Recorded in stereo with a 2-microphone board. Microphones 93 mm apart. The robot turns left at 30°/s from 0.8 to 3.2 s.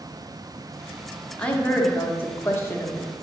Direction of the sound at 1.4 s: 15° left (ahead or behind).